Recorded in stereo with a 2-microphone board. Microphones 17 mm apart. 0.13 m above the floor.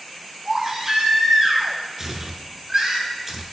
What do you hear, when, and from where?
0.5 s a baby crying: 25° right (ahead or behind), 1.5 m
2.0 s tearing paper: 25° right (ahead or behind), 0.7 m